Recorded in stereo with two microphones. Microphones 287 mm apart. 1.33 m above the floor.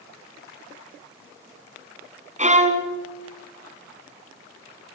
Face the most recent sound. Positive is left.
turn(degrees=-25)  # may be behind; listen again after turning